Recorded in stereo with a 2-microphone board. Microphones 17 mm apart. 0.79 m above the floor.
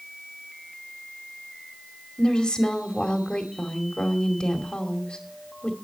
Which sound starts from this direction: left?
A woman speaking, at 2.2 s.